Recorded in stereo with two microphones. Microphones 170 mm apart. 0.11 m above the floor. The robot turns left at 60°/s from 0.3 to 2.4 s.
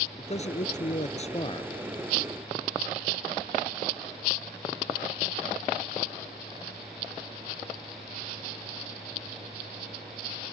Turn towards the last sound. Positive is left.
turn(degrees=-5)